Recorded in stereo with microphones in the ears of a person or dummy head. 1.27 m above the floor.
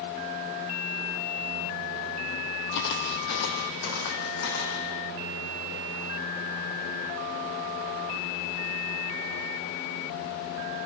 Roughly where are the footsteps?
Left.